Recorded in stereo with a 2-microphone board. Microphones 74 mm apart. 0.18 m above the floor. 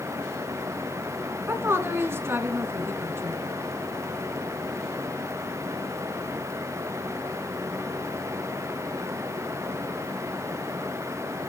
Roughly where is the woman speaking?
Right.